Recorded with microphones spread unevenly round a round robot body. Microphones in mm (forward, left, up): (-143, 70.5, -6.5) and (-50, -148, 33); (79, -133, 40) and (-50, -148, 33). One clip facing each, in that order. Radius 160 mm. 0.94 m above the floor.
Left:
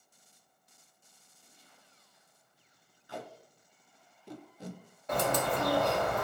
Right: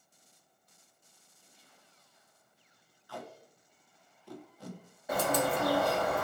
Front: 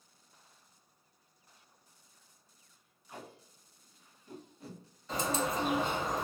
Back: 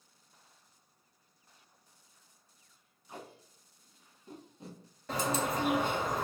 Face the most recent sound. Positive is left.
turn(degrees=-145)